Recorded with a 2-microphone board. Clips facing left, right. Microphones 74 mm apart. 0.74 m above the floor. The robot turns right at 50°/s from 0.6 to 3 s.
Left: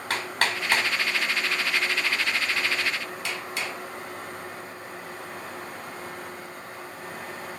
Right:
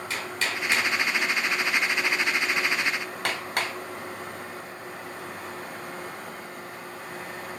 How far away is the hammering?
About 2.5 m.